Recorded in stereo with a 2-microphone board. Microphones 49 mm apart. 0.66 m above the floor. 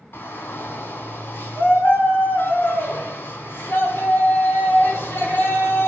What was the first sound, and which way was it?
A shout, 55° left (ahead or behind).